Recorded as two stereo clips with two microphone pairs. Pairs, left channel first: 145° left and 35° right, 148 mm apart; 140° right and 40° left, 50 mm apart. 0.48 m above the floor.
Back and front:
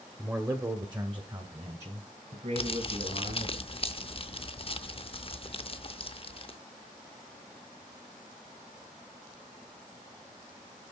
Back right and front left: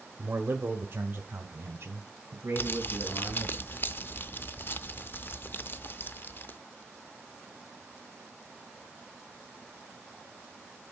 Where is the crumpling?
175° right, 0.6 m.